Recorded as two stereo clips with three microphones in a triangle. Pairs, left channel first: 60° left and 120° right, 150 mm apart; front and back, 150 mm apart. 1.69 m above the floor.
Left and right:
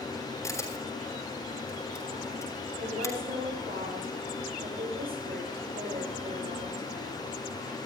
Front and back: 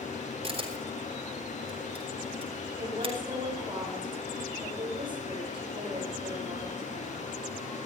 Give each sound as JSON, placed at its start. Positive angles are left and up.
{"t": 0.4, "sound": "a camera shutter", "azimuth_deg": 130, "distance_m": 3.5}
{"t": 2.8, "sound": "a woman speaking", "azimuth_deg": -125, "distance_m": 7.5}